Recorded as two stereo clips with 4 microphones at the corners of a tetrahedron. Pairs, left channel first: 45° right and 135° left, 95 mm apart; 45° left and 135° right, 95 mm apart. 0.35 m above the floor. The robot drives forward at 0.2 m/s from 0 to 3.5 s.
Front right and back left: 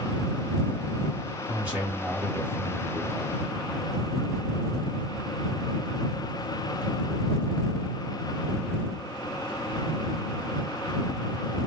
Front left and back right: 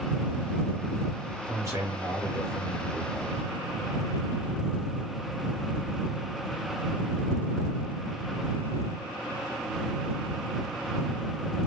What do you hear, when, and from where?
1.4 s a man speaking: 160° right, 1.7 m; by 3.2 s 165° right, 1.9 m